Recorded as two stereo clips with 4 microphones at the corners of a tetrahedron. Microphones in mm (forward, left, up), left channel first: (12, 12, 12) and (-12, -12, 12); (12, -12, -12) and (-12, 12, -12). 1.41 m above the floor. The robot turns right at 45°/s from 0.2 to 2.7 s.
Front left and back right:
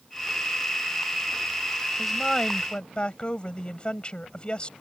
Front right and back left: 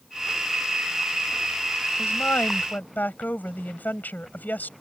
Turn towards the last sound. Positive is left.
turn(degrees=-15)